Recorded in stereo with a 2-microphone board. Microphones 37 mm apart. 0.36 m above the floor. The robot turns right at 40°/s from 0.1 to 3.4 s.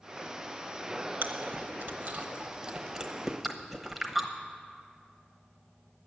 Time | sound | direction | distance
1.2 | chewing | 60° right (ahead or behind) | 1.0 m